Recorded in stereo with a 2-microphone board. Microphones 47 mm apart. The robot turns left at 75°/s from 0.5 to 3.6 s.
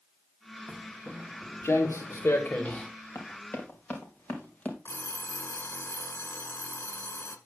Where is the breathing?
No breathing in this recording.